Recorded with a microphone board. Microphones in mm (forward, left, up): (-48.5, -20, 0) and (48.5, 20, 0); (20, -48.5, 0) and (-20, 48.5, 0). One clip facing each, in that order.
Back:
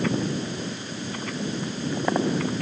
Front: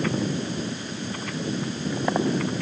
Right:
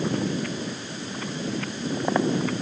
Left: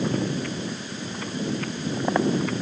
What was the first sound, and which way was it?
Only background noise.